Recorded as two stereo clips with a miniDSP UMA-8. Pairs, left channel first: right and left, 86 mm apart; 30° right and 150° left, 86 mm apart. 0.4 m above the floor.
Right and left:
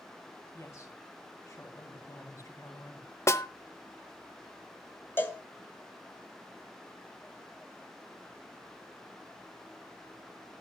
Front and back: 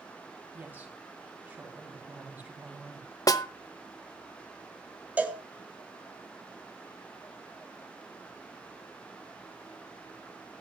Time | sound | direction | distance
0.5 | a woman speaking | 145° right | 3.5 m
3.3 | a snare drum | 50° right | 0.8 m
5.2 | a cowbell | 145° right | 1.6 m